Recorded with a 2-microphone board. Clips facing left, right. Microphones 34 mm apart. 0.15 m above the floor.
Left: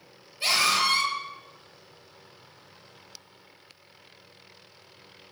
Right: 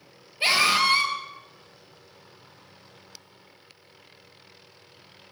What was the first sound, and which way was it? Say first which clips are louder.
A scream: right 3 dB; 30° right (ahead or behind).